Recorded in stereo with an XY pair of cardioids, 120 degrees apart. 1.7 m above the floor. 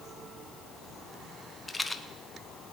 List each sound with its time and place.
1.7 s a rattle: 10° left, 0.9 m